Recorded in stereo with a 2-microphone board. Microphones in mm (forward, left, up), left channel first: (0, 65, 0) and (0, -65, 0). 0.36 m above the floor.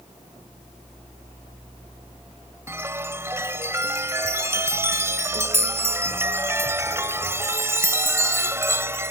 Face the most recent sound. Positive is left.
turn(degrees=-20)  # may be behind; listen again after turning